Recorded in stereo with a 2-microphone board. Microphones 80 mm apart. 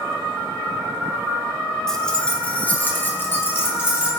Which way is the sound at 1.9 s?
5° left (ahead or behind).